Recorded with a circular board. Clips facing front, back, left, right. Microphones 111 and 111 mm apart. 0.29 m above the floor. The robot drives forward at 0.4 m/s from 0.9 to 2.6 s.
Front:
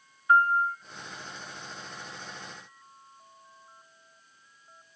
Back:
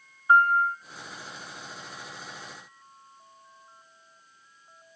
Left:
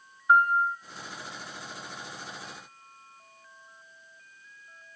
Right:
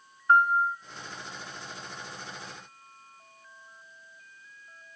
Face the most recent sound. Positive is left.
turn(degrees=170)